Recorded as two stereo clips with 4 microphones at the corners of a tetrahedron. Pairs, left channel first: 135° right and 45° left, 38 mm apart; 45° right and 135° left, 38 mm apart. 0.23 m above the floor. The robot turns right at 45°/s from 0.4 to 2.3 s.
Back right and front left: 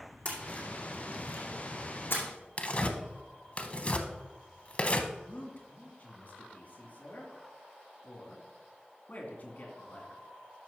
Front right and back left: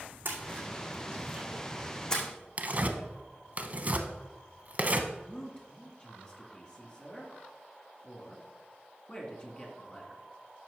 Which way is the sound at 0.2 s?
170° left.